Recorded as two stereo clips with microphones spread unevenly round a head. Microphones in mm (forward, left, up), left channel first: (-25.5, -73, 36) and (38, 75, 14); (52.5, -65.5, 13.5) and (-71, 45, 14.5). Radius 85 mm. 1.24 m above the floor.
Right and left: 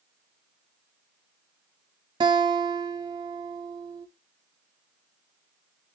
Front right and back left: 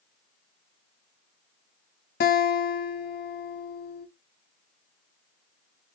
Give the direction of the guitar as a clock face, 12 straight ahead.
12 o'clock.